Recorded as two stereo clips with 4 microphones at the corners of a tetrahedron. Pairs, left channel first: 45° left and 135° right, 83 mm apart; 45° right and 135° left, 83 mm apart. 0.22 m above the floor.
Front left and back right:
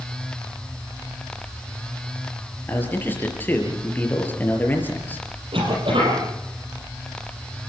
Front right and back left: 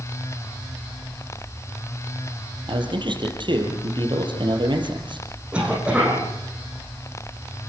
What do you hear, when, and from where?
2.7 s a man speaking: 115° left, 4.5 m
5.5 s a cough: 145° right, 6.5 m